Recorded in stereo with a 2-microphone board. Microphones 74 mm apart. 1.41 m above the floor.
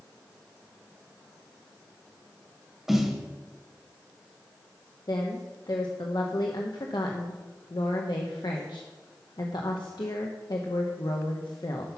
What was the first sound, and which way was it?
A snare drum, 5° right (ahead or behind).